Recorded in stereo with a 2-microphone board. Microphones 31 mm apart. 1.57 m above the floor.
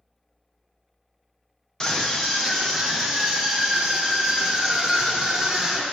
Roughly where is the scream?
Left.